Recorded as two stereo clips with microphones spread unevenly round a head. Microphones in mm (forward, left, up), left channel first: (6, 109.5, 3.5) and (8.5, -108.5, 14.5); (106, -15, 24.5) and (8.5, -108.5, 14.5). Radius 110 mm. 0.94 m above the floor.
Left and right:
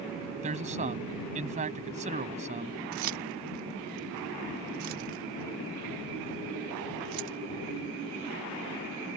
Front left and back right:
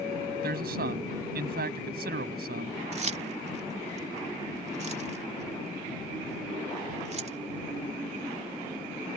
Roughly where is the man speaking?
Behind right.